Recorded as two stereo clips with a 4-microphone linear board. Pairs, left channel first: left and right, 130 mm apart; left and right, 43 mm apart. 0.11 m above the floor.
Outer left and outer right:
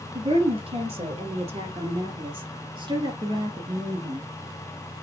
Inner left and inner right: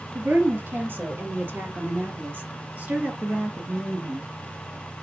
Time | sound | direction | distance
0.1 | a woman speaking | 50° right (ahead or behind) | 2.5 m